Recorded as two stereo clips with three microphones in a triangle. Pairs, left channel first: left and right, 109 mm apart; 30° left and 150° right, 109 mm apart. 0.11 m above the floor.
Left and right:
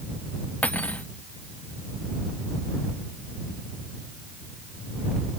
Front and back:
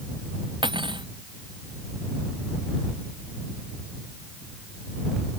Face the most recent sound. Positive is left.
turn(degrees=170)